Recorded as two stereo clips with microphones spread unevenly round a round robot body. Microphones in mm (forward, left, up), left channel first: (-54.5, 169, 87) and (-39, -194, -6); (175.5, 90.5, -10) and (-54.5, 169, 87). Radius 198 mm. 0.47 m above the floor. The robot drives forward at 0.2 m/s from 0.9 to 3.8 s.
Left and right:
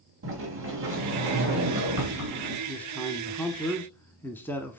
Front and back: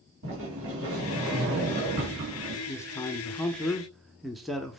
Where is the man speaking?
15° right, 1.0 m; by 4.8 s 20° right, 0.9 m.